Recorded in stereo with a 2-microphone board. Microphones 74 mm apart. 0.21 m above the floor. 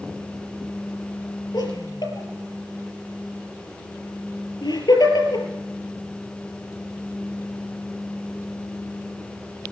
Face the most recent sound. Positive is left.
turn(degrees=70)  # may be behind; listen again after turning